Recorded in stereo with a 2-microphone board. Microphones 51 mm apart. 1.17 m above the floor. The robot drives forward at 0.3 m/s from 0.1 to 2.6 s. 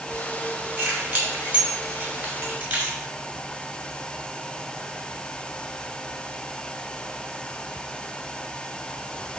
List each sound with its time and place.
0.8 s keys jangling: 35° right (ahead or behind), 2.5 m; by 3.0 s 40° right (ahead or behind), 2.5 m